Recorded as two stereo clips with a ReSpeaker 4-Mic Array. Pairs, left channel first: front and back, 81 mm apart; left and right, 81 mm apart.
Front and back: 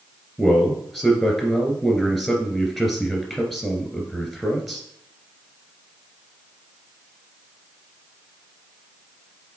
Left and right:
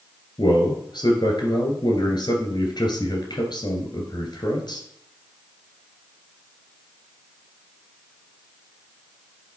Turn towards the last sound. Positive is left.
turn(degrees=90)